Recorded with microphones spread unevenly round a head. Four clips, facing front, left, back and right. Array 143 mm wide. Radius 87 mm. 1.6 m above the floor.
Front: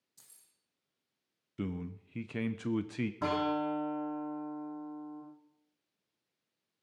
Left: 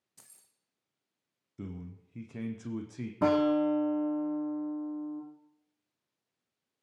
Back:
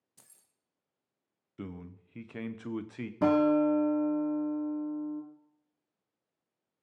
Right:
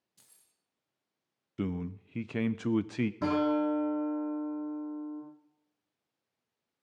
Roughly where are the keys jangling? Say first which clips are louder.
Left 6 dB, back 5 dB; behind left.